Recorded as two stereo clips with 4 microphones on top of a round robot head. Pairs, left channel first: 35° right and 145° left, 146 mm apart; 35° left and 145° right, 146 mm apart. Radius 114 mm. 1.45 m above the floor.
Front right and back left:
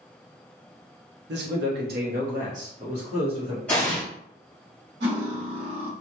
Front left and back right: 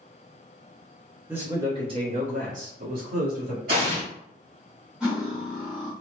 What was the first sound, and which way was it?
A man speaking, 135° left.